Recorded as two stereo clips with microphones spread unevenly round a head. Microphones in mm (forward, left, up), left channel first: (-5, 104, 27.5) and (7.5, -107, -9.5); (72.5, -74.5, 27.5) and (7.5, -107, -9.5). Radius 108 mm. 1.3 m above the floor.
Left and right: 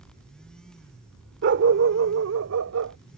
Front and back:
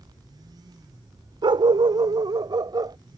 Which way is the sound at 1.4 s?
120° right.